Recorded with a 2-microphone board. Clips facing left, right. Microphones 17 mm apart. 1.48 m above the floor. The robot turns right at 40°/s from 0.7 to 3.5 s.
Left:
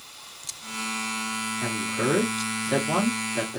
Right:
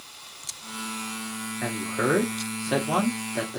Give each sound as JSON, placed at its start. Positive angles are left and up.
{"t": 1.6, "sound": "a man speaking", "side_deg": -70, "distance_m": 0.9}